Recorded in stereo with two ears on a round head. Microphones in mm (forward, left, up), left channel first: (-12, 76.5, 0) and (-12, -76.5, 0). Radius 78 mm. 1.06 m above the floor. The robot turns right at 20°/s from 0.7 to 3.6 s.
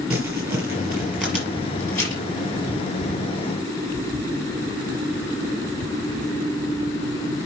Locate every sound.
0.1 s crumpling: 10° right (ahead or behind), 4.5 m; by 2.2 s 20° left (ahead or behind), 4.5 m